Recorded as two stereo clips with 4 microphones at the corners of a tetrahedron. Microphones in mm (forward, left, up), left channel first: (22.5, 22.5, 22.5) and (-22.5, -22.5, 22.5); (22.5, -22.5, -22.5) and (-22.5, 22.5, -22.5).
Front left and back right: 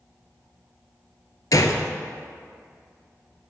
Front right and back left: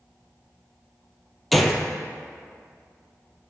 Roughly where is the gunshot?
Ahead left.